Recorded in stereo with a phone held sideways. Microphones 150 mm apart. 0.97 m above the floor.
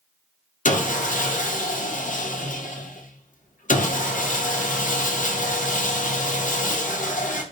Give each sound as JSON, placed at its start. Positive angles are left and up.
{"t": 0.7, "sound": "sawing", "side_deg": 60, "distance_m": 0.6}